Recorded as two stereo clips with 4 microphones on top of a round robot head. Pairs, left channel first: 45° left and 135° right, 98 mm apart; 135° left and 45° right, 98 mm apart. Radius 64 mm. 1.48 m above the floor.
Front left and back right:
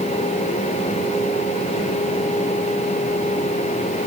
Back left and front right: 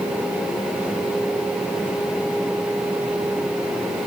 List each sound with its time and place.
Only background noise.